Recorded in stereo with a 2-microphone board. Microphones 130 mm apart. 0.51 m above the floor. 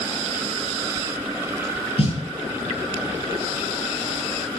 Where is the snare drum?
55° left (ahead or behind), 8.5 m.